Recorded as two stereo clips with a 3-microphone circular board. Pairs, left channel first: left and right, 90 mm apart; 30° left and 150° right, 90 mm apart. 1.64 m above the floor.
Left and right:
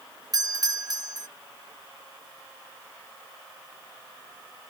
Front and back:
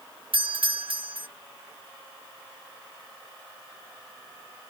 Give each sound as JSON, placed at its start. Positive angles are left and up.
{"t": 0.3, "sound": "a doorbell", "azimuth_deg": -135}